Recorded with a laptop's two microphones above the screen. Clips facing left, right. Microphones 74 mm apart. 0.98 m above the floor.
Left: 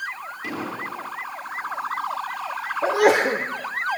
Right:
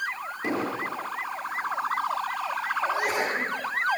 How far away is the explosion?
About 9.5 m.